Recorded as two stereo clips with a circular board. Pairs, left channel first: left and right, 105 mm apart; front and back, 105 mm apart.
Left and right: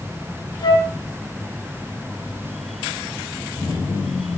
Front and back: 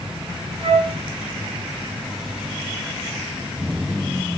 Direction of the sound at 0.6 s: 140° left.